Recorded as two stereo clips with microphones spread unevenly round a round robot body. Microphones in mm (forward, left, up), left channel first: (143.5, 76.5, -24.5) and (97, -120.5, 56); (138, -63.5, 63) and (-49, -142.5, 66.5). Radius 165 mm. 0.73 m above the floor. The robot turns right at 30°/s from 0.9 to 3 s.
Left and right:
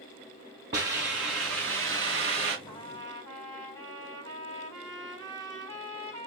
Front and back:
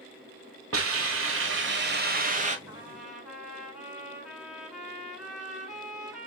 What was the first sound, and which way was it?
A hiss, 150° right.